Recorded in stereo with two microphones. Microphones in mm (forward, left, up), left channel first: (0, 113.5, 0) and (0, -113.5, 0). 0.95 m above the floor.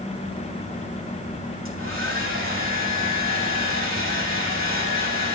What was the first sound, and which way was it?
A hair dryer, 65° right (ahead or behind).